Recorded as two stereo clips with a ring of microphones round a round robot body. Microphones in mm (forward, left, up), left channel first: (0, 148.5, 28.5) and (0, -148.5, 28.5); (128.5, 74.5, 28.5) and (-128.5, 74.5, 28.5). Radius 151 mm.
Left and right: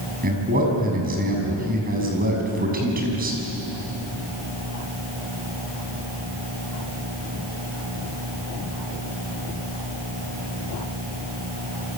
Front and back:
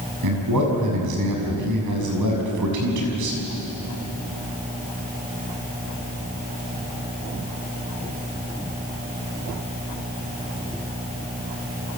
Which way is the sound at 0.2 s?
150° right.